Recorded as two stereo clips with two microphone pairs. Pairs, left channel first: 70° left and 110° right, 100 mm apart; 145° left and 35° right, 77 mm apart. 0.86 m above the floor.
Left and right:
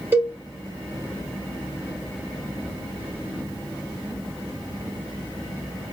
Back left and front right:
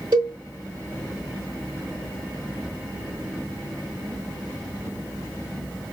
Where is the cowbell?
40° right, 1.9 m.